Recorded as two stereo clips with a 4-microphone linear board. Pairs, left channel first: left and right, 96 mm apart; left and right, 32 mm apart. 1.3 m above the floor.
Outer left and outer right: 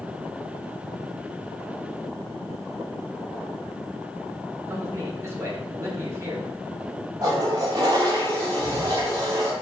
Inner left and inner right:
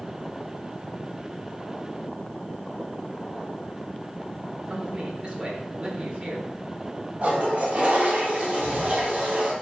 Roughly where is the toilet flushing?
Right.